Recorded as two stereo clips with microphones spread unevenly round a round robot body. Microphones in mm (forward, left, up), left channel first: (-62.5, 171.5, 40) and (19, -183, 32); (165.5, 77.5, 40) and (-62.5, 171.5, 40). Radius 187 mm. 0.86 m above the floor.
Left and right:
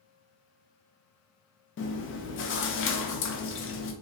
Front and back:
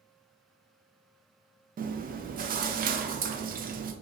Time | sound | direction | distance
1.8 | chewing | 135° left | 0.5 m